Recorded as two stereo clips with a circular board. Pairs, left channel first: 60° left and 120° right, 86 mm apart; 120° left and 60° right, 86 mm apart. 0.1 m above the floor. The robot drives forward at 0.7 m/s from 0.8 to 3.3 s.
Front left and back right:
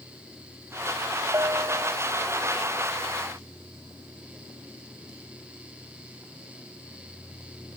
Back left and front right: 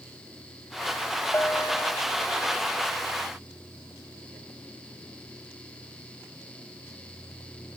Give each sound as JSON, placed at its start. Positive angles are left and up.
{"t": 1.3, "sound": "a bell", "azimuth_deg": -175}